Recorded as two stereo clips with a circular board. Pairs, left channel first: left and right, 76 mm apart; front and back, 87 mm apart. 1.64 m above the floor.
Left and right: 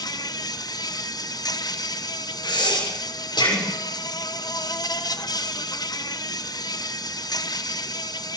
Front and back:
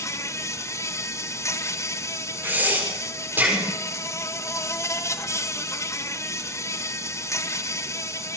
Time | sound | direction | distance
0.0 | an insect | 55° left | 1.4 m
2.4 | breathing | 110° left | 6.5 m